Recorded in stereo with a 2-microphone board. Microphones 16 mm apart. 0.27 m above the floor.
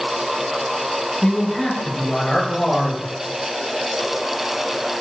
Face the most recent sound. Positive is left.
turn(degrees=60)  # may be behind; listen again after turning